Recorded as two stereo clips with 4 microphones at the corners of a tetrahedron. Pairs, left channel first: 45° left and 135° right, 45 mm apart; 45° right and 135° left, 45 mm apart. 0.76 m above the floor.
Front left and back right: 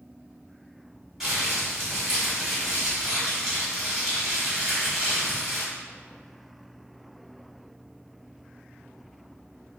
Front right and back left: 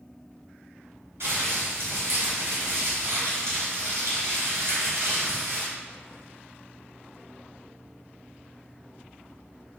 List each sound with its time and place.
1.2 s crumpling: 140° left, 1.7 m